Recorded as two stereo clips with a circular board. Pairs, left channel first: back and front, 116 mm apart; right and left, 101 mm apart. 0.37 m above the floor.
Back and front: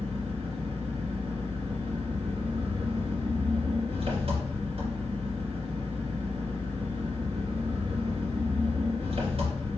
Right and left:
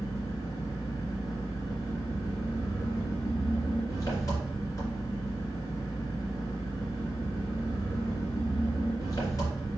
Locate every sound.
0.0 s an engine running: 30° right, 2.5 m